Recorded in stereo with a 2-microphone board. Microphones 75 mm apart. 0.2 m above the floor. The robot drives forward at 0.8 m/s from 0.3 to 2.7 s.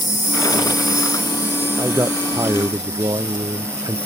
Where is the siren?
I don't hear a siren.